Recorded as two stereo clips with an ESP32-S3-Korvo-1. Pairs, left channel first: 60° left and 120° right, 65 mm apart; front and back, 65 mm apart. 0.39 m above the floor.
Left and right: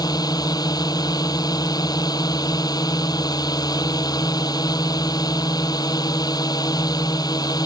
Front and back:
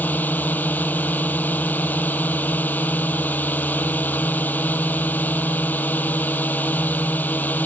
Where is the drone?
60° left.